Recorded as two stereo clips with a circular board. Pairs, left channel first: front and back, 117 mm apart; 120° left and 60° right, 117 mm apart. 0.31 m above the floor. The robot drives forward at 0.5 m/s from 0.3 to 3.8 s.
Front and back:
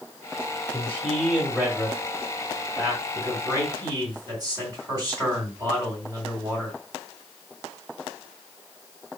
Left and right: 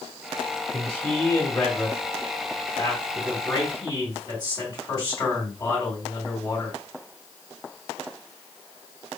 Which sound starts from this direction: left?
A man speaking, at 0.7 s.